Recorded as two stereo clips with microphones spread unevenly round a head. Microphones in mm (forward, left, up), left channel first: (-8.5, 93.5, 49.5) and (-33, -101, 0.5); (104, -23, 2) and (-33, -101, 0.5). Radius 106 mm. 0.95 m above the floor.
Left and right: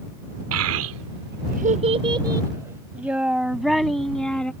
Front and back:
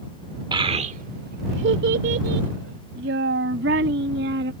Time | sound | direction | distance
0.5 | a child speaking | 90° right | ?